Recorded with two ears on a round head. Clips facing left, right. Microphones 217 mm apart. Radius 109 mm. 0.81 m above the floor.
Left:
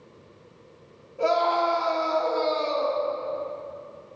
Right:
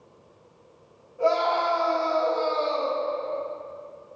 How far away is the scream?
About 1.9 m.